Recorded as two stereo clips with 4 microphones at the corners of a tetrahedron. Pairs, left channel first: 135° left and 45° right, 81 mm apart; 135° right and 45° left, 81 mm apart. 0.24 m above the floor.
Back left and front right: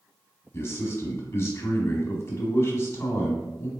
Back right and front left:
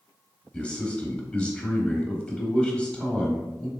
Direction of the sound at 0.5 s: 160° left.